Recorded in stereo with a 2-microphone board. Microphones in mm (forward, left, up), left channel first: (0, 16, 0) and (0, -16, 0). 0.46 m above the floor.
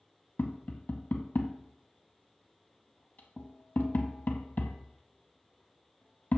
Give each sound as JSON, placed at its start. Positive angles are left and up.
{"t": 0.4, "sound": "tapping", "side_deg": 65, "distance_m": 0.7}